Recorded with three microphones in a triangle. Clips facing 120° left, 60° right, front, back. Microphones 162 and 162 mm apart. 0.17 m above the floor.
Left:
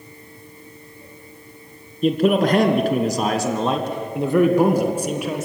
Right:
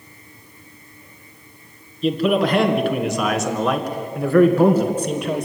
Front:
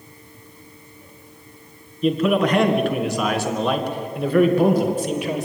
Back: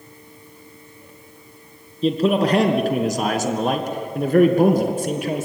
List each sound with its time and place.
2.0 s a man speaking: 130° left, 2.5 m; by 5.5 s 155° right, 2.5 m